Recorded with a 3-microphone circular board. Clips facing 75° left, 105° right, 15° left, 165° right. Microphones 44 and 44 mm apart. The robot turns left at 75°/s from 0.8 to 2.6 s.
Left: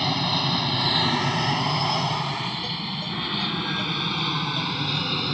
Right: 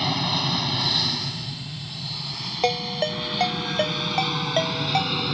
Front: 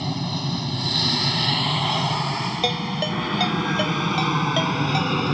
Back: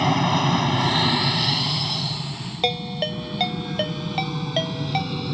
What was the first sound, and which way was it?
An aircraft, 165° left.